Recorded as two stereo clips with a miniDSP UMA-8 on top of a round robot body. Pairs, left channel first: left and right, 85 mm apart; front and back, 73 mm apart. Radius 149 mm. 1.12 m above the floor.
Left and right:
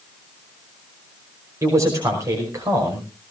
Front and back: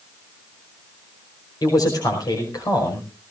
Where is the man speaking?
35° right, 5.5 m.